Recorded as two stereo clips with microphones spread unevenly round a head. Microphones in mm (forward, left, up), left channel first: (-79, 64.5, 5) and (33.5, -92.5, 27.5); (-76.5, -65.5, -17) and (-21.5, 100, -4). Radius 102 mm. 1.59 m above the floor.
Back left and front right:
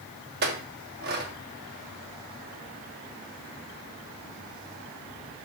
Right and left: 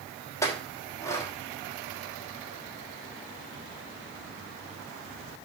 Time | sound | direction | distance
0.4 | a clink | 35° right | 1.5 m